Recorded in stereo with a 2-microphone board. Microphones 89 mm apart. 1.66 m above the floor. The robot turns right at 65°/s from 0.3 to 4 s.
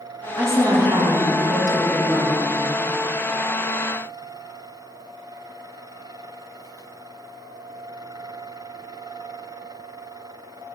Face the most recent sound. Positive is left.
turn(degrees=90)